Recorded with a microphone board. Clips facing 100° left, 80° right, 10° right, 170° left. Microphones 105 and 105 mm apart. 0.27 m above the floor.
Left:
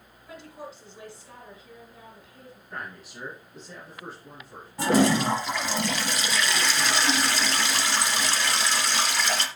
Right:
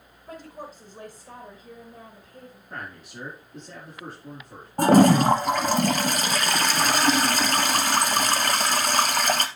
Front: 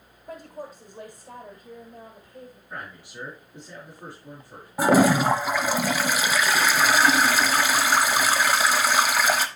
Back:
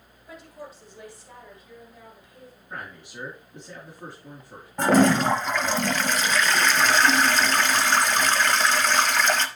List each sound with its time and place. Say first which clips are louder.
0.3 s a woman speaking: right 2 dB, front 4 dB; 50° right, 1.9 m
2.7 s a man speaking: even, back 1 dB; 120° right, 5.5 m
4.8 s a toilet flushing: right 5 dB, even; 90° right, 0.9 m